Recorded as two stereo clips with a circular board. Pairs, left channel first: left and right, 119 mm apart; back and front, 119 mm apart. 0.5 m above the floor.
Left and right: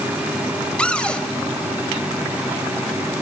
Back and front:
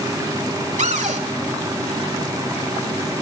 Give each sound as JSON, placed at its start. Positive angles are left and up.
{"t": 0.8, "sound": "a cupboard door", "azimuth_deg": 10, "distance_m": 1.0}